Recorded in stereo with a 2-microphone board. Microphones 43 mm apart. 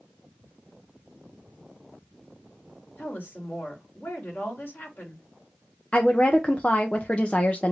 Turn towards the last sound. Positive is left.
turn(degrees=25)  # may be behind; listen again after turning